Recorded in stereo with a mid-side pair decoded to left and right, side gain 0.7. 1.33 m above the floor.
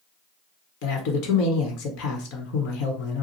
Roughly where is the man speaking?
Left.